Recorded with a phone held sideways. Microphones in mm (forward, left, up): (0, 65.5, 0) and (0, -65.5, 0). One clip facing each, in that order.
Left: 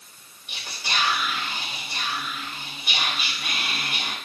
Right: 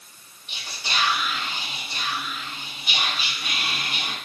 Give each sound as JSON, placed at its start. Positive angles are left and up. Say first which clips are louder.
{"t": 0.5, "sound": "whispering", "louder": "even", "side_deg": 55, "distance_m": 1.4}